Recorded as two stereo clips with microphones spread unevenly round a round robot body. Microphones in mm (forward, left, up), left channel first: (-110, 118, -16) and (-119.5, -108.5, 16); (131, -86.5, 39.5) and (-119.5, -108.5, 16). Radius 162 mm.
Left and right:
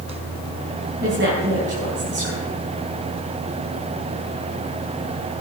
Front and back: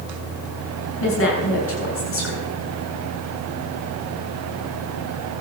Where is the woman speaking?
30° right, 8 m.